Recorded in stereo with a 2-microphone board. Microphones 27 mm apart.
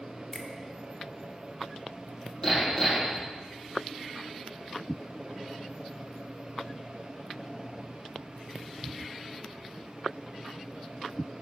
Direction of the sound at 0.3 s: 10° left (ahead or behind).